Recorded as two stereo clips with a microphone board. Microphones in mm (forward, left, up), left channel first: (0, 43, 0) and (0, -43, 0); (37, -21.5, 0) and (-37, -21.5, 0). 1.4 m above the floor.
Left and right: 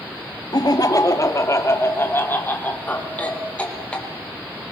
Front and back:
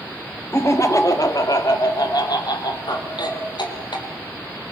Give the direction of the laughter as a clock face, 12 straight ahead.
10 o'clock.